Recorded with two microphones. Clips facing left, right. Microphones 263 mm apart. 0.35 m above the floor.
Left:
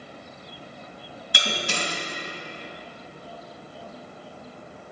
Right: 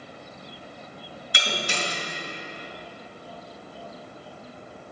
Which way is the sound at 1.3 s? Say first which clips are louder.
Left 1 dB; 55° left (ahead or behind).